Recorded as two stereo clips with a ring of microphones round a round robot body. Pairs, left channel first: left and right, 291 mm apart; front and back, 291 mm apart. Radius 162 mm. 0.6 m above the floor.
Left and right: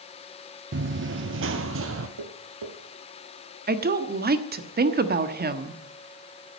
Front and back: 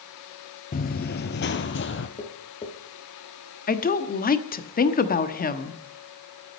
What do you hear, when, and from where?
0.7 s running footsteps: 55° right, 0.7 m; by 2.1 s 45° right, 1.3 m
2.2 s tapping: 70° right, 3 m
3.7 s a woman speaking: 45° right, 1.2 m